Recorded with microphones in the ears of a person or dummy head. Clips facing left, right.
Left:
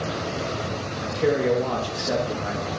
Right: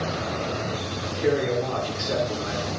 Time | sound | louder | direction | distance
1.0 | a man speaking | left 2 dB | 85° left | 2.5 m